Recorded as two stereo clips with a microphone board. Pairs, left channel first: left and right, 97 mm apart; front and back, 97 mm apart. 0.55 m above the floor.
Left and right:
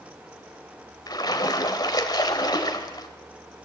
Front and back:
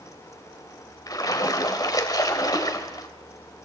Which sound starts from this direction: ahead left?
A splash, at 1.1 s.